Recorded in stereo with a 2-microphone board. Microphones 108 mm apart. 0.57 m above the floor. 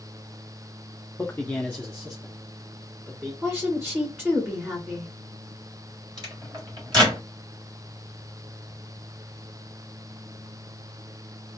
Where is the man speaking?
20° left (ahead or behind), 0.6 m; by 3.3 s centre (ahead or behind), 1.5 m.